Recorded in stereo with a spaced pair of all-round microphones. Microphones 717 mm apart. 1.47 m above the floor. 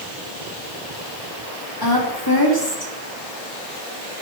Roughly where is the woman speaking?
Left.